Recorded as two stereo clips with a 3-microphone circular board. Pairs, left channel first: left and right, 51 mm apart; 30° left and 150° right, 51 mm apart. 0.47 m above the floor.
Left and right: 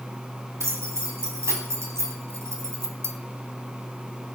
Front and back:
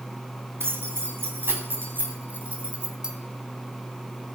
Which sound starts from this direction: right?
Keys jangling, at 0.6 s.